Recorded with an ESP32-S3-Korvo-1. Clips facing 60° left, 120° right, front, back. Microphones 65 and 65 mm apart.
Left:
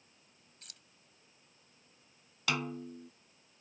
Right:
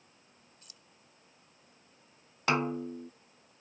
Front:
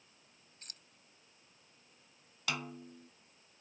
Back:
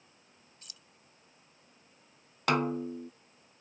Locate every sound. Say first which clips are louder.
0.6 s keys jangling: even, front 2 dB; 40° left
2.5 s a snare drum: right 6 dB, back 12 dB; 165° right